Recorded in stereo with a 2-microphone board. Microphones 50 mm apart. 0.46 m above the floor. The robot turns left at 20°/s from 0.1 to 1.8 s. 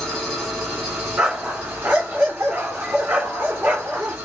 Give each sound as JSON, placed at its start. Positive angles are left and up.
{"t": 0.0, "sound": "an engine running", "azimuth_deg": 0, "distance_m": 1.7}
{"t": 1.2, "sound": "a dog barking", "side_deg": -20, "distance_m": 1.7}